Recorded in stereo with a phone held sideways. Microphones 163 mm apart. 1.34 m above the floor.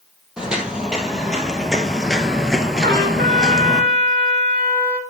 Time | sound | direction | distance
0.4 | footsteps | 5° right (ahead or behind) | 2 m
2.8 | a trumpet | 80° right | 1.7 m